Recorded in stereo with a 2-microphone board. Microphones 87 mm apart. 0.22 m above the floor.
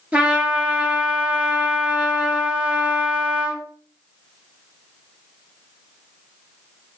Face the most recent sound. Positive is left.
turn(degrees=-15)  # may be behind; listen again after turning